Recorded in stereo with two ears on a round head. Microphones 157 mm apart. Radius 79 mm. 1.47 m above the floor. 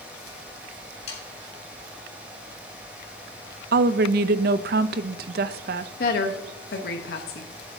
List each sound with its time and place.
1.1 s sawing: 35° left (ahead or behind), 3 m
3.7 s a woman speaking: 60° right (ahead or behind), 0.5 m
6.0 s a woman speaking: 60° left (ahead or behind), 0.9 m